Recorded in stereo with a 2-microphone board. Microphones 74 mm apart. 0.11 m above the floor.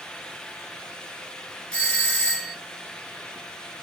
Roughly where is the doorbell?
Centre.